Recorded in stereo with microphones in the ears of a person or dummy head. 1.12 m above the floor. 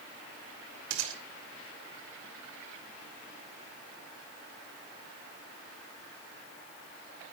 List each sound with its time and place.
0.9 s a gunshot: 75° right (ahead or behind), 3 m